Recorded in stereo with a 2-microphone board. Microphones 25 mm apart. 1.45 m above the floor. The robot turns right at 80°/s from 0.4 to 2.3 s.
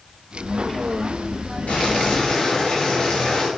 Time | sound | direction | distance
1.7 | boiling | 105° left | 4 m